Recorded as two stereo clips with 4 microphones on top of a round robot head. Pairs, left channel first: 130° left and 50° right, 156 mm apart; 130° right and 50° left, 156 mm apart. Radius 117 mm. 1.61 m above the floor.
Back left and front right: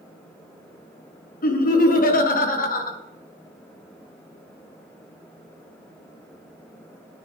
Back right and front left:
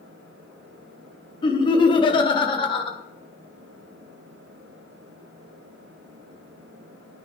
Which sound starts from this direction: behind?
Laughter, at 1.4 s.